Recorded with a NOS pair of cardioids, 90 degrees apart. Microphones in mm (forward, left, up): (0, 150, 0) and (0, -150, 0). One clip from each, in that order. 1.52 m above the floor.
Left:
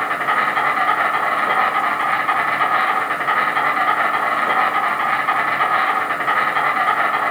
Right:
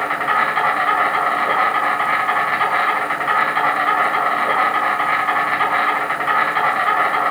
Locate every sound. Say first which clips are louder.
0.0 s an insect: even; 5° right, 4 m